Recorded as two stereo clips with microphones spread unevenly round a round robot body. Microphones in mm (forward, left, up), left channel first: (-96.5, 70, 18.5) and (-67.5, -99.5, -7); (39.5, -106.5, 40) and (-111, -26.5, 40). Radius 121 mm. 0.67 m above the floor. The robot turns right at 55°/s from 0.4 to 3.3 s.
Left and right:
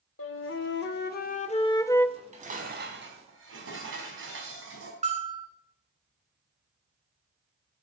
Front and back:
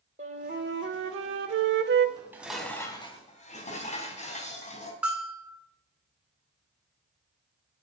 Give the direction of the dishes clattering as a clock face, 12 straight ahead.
5 o'clock.